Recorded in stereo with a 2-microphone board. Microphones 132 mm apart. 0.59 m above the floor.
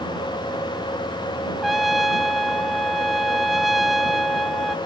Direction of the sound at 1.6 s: Centre (ahead or behind).